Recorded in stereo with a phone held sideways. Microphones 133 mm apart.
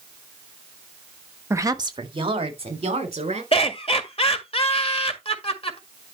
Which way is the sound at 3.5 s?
45° left (ahead or behind).